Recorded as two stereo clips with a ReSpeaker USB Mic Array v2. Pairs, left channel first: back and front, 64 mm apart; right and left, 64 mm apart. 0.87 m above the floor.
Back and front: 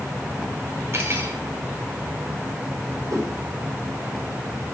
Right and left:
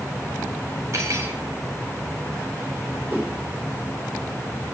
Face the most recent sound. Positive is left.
turn(degrees=25)